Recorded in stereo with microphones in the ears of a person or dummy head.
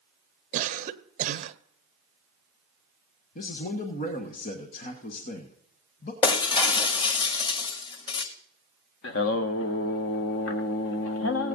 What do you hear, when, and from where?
0.5 s a cough: 55° right (ahead or behind), 0.9 m
3.4 s a man speaking: 50° left (ahead or behind), 1.3 m
6.2 s breaking glass: 35° left (ahead or behind), 1.7 m
9.0 s singing: 70° left (ahead or behind), 0.8 m